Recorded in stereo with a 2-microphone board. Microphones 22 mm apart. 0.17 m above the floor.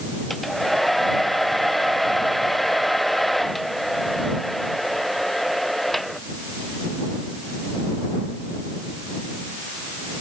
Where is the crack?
No crack in this recording.